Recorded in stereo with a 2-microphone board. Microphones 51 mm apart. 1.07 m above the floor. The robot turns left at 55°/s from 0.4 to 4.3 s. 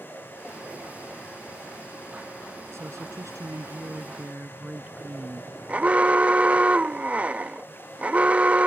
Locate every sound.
2.7 s a woman speaking: 60° right; by 5.5 s 145° right
5.7 s an alarm: 25° right (ahead or behind)